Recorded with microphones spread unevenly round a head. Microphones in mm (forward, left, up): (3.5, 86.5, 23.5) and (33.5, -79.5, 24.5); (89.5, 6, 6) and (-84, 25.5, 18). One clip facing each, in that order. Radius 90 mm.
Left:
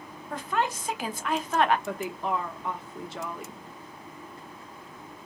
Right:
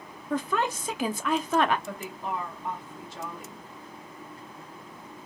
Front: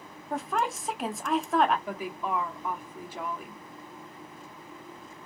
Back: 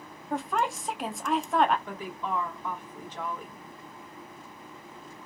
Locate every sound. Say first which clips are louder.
0.3 s a woman speaking: right 2 dB, back 1 dB; 95° right, 0.5 m
1.9 s a woman speaking: left 4 dB, front 2 dB; 75° left, 1.0 m